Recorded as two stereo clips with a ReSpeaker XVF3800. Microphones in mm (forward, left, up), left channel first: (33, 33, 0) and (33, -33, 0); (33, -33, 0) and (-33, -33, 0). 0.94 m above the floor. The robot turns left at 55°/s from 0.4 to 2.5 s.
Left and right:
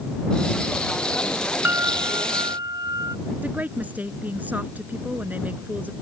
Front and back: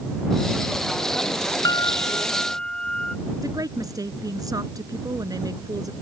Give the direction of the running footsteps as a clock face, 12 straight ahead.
No running footsteps in this recording.